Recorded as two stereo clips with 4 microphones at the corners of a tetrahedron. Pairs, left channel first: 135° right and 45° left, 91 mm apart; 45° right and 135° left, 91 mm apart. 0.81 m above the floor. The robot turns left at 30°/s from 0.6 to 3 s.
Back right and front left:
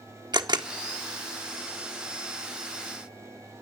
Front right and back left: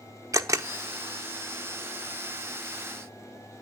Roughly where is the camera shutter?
Left.